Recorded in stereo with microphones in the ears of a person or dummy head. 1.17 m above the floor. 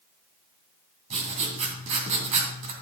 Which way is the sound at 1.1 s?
30° right (ahead or behind).